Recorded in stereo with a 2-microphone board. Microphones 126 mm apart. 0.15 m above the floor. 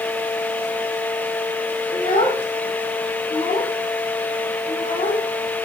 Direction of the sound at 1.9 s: 50° left (ahead or behind).